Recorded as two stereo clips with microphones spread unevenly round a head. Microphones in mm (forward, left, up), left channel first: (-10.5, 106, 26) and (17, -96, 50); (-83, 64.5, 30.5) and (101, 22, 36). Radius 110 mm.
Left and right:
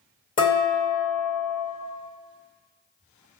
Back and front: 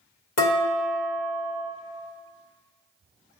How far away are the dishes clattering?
About 1.7 m.